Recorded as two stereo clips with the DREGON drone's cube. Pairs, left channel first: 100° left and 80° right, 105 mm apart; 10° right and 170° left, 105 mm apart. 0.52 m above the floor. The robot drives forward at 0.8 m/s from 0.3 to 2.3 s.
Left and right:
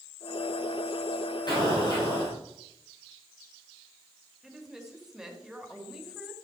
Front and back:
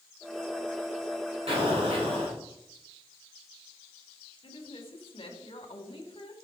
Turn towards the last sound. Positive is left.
turn(degrees=5)